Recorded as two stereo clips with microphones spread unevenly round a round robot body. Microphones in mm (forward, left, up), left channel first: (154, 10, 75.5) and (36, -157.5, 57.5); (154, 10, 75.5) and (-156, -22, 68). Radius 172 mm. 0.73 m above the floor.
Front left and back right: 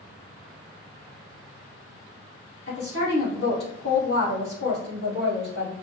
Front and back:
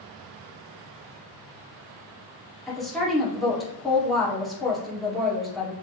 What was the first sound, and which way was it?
A woman speaking, 95° left.